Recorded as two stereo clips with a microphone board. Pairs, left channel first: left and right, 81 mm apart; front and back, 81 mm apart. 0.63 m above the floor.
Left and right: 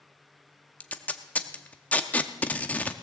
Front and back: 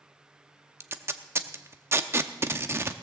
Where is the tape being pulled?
150° left, 0.7 m.